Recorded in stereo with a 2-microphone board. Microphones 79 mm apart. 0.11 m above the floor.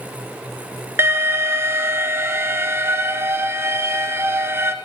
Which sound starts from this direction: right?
An alarm, at 1.0 s.